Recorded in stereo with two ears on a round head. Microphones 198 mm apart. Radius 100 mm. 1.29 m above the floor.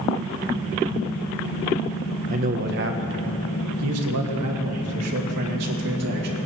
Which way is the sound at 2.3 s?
35° right (ahead or behind).